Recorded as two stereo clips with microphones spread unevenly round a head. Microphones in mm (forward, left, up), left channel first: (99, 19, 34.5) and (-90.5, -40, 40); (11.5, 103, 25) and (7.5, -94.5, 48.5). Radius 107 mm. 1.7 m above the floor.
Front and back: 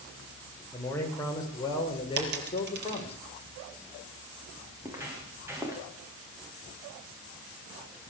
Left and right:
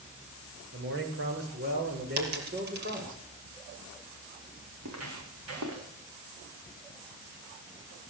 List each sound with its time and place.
0.7 s a man speaking: 60° right, 7.5 m; by 3.2 s 45° right, 6.5 m
2.2 s a dropped coin: 130° right, 4.5 m
4.8 s footsteps: 85° right, 7.5 m